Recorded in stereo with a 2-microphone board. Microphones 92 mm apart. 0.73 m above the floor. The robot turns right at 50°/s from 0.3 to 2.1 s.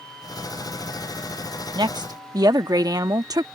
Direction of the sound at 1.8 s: 55° right (ahead or behind).